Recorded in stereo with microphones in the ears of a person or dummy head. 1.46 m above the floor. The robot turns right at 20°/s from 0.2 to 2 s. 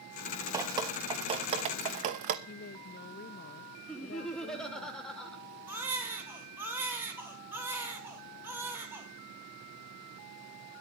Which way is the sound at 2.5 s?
55° left (ahead or behind).